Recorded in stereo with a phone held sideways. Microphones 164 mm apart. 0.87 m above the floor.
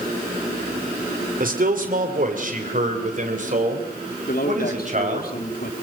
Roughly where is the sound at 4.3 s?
Left.